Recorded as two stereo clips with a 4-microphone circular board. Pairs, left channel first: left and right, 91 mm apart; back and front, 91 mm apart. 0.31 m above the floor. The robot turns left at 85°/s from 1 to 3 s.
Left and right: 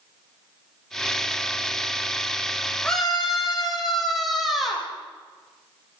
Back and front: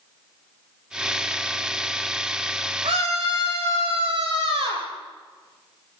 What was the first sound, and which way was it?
A scream, 15° left.